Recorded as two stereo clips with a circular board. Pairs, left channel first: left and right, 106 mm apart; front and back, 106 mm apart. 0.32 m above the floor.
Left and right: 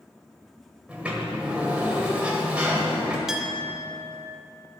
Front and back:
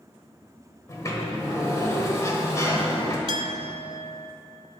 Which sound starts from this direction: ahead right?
A sliding door, at 0.9 s.